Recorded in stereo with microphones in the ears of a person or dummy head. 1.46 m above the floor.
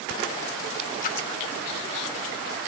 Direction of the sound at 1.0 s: 40° left (ahead or behind).